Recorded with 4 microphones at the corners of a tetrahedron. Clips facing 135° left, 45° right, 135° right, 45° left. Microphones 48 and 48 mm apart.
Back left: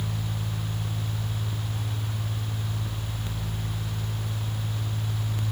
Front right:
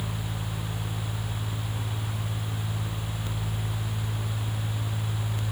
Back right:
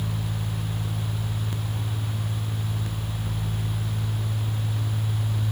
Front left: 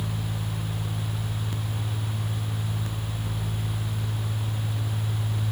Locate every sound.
Only background noise.